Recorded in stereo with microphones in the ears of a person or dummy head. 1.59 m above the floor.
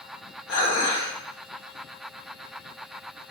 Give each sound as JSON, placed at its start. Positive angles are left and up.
{"t": 0.5, "sound": "dishes clattering", "side_deg": 70, "distance_m": 1.5}